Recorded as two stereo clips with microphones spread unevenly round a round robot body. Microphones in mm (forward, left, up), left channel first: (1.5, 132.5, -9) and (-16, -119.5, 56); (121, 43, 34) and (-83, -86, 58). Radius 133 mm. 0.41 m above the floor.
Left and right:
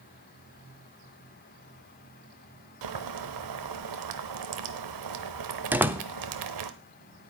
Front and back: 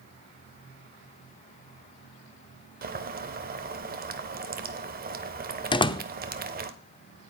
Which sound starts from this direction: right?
Boiling, at 2.8 s.